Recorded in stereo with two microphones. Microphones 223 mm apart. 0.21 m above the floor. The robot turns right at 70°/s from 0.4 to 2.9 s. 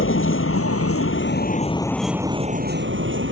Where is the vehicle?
65° left; by 3.3 s 120° right.